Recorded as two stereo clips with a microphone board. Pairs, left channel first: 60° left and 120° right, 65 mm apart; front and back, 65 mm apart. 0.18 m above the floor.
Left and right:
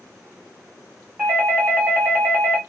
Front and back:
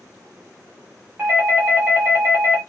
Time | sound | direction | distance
1.2 | a doorbell | 150° right | 1.6 m